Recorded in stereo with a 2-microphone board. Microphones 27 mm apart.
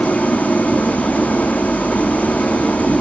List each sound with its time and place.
0.0 s an engine running: 60° left (ahead or behind), 1.2 m